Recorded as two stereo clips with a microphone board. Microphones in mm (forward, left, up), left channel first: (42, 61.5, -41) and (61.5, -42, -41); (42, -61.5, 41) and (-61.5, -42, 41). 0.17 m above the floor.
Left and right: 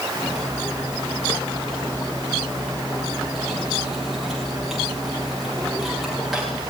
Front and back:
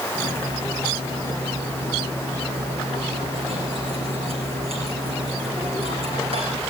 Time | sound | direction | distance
0.1 | cutlery clinking | 170° right | 9.5 m